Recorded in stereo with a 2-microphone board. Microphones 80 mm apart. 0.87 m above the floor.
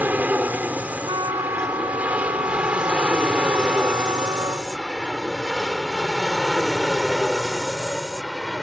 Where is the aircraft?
20° right (ahead or behind); by 8.6 s centre (ahead or behind).